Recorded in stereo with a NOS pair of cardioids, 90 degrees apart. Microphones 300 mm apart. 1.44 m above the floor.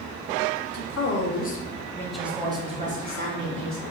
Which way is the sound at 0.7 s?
50° left.